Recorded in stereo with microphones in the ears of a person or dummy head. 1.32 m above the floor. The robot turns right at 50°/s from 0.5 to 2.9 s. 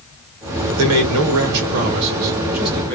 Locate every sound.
0.8 s a man speaking: 95° right, 1.3 m; by 3.0 s 10° left, 1.3 m